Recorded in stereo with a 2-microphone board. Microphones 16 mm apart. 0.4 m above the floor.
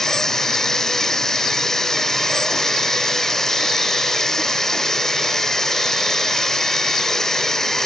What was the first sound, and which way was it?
Running water, 25° left (ahead or behind).